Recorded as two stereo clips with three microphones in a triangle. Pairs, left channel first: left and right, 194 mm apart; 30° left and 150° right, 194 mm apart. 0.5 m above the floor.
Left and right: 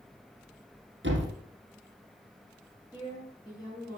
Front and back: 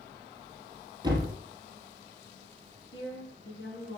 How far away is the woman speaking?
About 5 m.